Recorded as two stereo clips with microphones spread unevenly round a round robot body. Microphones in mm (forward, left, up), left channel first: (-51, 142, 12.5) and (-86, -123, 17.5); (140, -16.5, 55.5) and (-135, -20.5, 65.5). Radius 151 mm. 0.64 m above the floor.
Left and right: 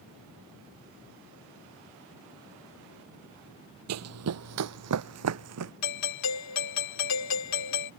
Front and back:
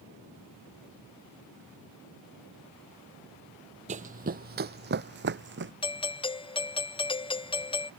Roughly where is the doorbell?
Left.